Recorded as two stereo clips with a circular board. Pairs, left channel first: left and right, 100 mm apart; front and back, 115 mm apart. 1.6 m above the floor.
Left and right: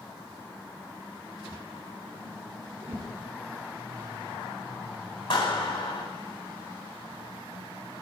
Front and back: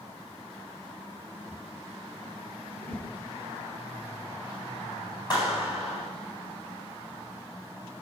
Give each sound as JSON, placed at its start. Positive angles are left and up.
{"t": 2.8, "sound": "a whoosh", "azimuth_deg": -80, "distance_m": 4.5}
{"t": 5.3, "sound": "a clap", "azimuth_deg": 50, "distance_m": 9.5}